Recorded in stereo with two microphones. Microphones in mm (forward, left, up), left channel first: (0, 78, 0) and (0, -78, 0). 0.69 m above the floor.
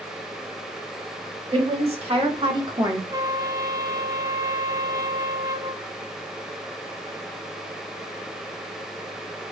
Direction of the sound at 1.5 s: 40° right (ahead or behind).